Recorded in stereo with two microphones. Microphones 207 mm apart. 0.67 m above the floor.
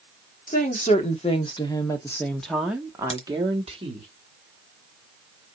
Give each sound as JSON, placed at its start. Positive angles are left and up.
{"t": 0.5, "sound": "a woman speaking", "side_deg": 40, "distance_m": 1.8}
{"t": 3.1, "sound": "a crack", "side_deg": 30, "distance_m": 1.5}